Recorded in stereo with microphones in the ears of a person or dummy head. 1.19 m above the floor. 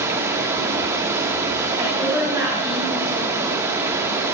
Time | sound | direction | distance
0.0 | running water | 15° right (ahead or behind) | 0.9 m
1.8 | a woman speaking | 5° right (ahead or behind) | 3 m